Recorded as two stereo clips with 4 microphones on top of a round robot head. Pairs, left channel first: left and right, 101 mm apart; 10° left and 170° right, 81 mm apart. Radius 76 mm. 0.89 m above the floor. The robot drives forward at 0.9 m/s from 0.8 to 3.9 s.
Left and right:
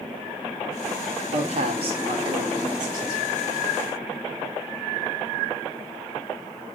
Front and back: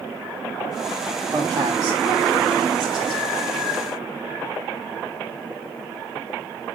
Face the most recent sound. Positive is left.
turn(degrees=-150)